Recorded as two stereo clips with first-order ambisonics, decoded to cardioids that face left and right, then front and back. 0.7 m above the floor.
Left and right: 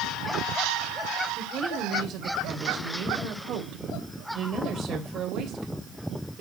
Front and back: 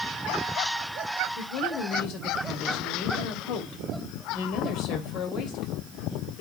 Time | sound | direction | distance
1.4 | a woman speaking | 35° right | 3 m